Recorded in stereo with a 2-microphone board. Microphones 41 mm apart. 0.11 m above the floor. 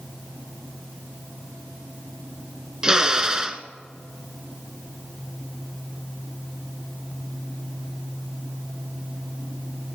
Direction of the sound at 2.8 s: 20° right (ahead or behind).